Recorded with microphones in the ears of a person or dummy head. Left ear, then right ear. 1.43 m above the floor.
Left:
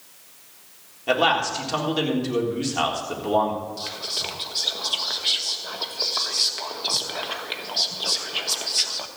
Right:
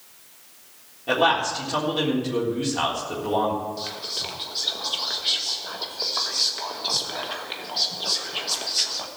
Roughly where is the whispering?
Centre.